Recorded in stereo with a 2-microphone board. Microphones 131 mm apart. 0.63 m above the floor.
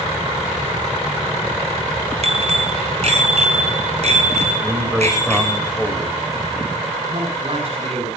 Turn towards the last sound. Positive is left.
turn(degrees=-50)  # may be behind; listen again after turning